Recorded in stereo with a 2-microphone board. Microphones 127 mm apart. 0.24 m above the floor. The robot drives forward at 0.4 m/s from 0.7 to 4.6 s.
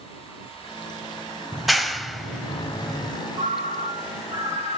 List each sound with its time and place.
1.5 s a clap: centre (ahead or behind), 0.8 m
3.4 s a ringtone: 60° right (ahead or behind), 3.5 m; by 4.8 s 65° right (ahead or behind), 3 m